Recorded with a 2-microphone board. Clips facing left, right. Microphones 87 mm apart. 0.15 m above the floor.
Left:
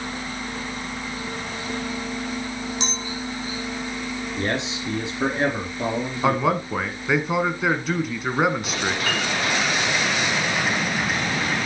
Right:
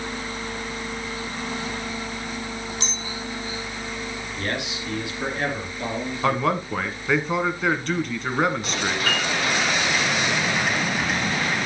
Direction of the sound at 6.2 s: 5° left (ahead or behind).